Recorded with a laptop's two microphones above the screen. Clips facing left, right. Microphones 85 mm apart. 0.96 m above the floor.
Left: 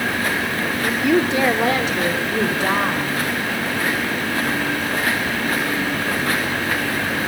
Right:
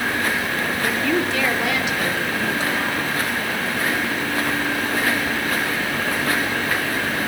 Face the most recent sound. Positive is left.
turn(degrees=60)  # may be behind; listen again after turning